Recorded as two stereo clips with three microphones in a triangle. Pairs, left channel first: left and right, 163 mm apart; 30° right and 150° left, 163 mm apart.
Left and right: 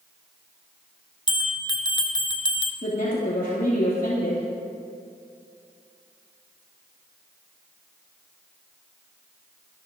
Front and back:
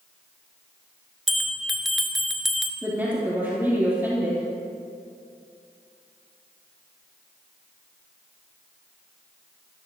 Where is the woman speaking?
75° left, 3.5 m.